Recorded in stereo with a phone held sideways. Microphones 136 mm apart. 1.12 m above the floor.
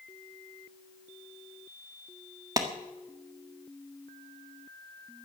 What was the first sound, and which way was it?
A clap, 25° right (ahead or behind).